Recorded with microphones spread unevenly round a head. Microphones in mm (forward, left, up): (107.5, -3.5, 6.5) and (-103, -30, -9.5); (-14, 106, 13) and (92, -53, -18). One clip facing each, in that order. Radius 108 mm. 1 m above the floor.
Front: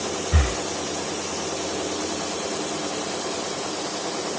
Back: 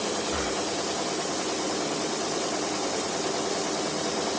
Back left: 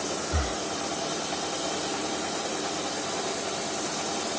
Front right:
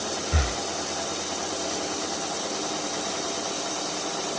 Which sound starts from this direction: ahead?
Breathing, at 0.3 s.